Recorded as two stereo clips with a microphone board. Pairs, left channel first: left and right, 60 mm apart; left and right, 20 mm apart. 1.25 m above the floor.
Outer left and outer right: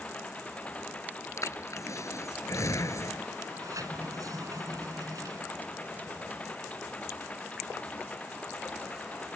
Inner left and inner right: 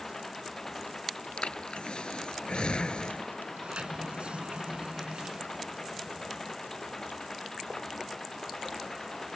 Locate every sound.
0.0 s an engine running: 20° left (ahead or behind)
1.4 s breathing: 60° left (ahead or behind)
3.5 s a sliding door: 70° right (ahead or behind)